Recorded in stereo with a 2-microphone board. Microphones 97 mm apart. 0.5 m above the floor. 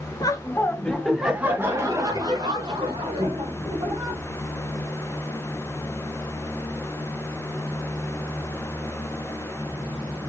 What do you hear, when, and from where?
0.2 s laughter: 40° left (ahead or behind), 1.0 m; by 4.2 s 60° right (ahead or behind), 2.5 m